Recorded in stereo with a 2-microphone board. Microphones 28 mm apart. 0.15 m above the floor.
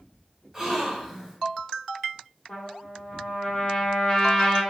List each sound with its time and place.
0.5 s a gasp: 15° right (ahead or behind), 1.1 m
2.5 s a trumpet: 20° left (ahead or behind), 1.2 m